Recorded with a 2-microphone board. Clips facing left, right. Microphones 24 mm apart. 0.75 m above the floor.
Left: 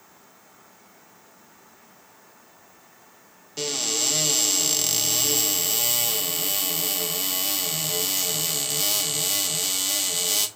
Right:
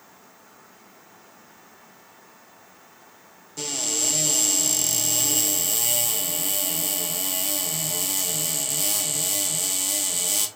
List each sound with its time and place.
3.6 s a cupboard door: 35° left (ahead or behind), 1.2 m